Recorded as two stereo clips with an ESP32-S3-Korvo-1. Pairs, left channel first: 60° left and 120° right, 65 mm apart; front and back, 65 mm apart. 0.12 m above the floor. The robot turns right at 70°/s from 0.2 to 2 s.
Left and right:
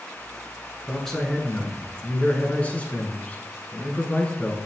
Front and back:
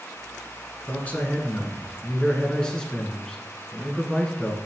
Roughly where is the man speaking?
Ahead right.